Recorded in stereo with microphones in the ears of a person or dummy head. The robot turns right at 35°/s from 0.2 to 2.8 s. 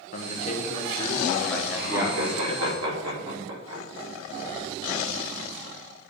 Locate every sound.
0.1 s a man speaking: 130° left, 1.4 m; by 2.8 s 140° right, 1.4 m
1.8 s laughter: 60° right (ahead or behind), 3 m; by 3.8 s 85° right, 3 m